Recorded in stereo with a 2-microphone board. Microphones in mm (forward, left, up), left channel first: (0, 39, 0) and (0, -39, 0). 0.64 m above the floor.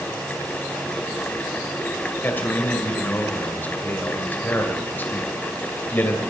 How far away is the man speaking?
About 2.5 m.